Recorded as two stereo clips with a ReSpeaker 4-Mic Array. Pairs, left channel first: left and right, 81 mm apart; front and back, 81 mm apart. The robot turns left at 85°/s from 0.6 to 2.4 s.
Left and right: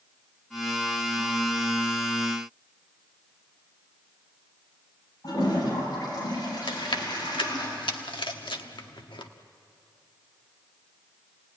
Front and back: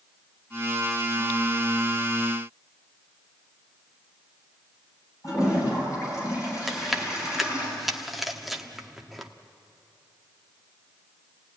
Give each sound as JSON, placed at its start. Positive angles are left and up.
{"t": 5.2, "sound": "a toilet flushing", "azimuth_deg": 50, "distance_m": 8.5}
{"t": 6.7, "sound": "chewing", "azimuth_deg": 90, "distance_m": 1.2}